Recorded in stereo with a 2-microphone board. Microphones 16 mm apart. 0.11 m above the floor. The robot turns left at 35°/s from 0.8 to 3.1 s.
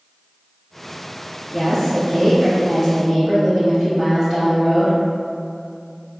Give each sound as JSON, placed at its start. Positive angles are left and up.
{"t": 1.5, "sound": "a woman speaking", "azimuth_deg": 0, "distance_m": 2.0}